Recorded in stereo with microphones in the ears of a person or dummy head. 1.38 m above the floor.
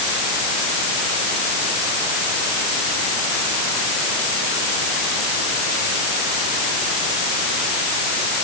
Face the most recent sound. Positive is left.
No sound to turn to.